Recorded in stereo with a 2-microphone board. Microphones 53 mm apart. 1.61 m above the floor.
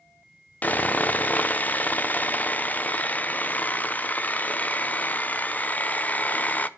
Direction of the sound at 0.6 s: 30° left (ahead or behind).